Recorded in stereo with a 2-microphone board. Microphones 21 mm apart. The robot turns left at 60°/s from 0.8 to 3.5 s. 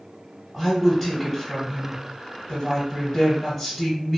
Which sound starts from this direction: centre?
A woman speaking, at 0.5 s.